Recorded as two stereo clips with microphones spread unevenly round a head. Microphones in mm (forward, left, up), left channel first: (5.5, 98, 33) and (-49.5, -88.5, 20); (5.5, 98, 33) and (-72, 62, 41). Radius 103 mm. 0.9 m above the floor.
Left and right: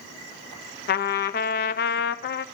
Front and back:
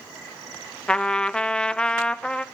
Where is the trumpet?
100° left, 0.5 m.